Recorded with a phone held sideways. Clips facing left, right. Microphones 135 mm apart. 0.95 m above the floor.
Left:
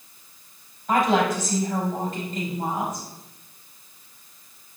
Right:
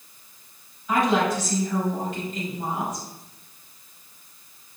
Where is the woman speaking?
50° left (ahead or behind), 5.5 m.